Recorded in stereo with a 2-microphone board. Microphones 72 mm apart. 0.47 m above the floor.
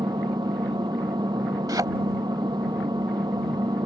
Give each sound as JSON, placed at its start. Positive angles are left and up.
{"t": 0.0, "sound": "an engine running", "side_deg": -90}
{"t": 1.7, "sound": "a thud", "side_deg": -65}